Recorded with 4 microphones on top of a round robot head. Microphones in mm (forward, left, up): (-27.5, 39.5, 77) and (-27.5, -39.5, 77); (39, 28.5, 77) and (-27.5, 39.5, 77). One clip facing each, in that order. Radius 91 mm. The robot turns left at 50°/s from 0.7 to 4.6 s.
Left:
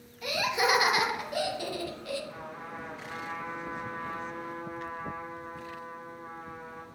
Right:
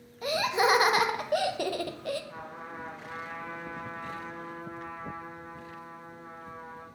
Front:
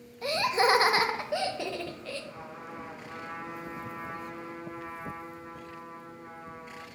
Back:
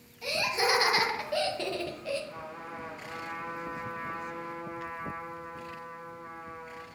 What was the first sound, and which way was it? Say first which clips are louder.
Laughter: right 2 dB, front 4 dB; 40° right.